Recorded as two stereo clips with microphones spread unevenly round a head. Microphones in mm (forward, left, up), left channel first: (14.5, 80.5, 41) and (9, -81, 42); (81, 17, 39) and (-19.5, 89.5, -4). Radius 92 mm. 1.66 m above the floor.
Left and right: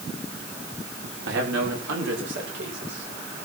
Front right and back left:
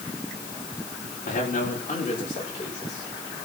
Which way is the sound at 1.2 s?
85° right.